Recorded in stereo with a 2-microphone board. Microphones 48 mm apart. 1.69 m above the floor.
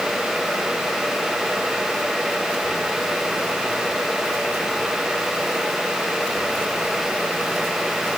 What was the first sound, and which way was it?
Only background noise.